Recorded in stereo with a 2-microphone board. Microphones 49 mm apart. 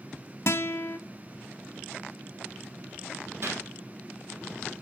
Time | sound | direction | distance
0.5 | a guitar | 65° left (ahead or behind) | 0.8 m
3.4 | a gunshot | 55° right (ahead or behind) | 3 m